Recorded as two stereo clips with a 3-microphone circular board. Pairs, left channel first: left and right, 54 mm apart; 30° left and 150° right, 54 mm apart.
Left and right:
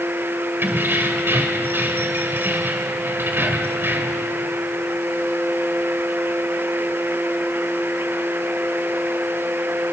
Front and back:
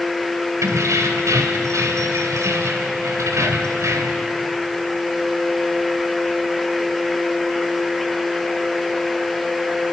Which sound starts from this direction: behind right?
Keys jangling, at 0.6 s.